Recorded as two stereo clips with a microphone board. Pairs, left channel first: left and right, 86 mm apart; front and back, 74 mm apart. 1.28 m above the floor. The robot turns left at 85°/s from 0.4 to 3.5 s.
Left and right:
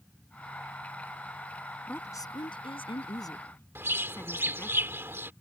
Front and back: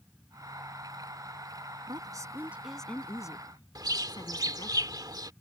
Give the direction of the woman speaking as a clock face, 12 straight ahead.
7 o'clock.